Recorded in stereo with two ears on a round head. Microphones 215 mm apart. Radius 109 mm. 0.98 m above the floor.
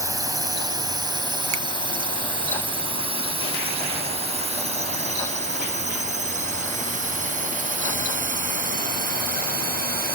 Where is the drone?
15° right (ahead or behind); by 10.2 s 40° right (ahead or behind).